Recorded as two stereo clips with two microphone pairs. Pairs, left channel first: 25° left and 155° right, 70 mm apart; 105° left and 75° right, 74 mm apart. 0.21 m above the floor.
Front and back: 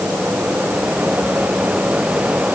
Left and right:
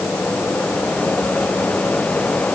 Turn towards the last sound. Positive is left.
No sound to turn to.